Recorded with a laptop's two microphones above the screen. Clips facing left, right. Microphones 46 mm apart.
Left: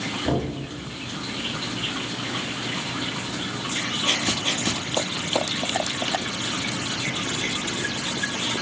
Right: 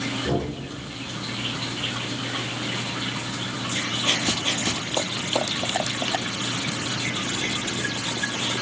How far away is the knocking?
About 5.5 m.